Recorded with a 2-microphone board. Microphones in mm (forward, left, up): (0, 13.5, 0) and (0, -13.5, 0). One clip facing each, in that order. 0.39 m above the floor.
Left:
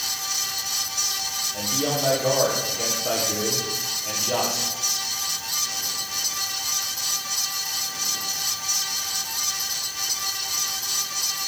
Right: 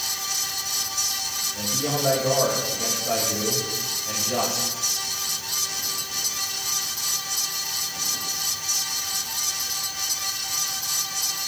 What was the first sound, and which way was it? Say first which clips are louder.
A man speaking: left 2 dB; 85° left.